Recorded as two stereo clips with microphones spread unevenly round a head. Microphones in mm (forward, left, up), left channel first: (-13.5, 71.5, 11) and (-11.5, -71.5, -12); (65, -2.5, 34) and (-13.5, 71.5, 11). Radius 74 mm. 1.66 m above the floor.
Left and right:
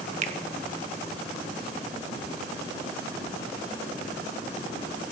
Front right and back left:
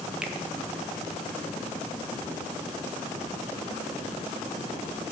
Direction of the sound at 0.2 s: 135° right.